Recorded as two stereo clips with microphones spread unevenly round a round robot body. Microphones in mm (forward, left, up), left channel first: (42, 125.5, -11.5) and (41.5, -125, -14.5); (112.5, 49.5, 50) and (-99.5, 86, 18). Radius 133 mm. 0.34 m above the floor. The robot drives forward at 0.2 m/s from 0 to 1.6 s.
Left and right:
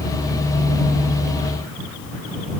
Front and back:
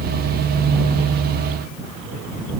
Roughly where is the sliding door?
I don't hear a sliding door.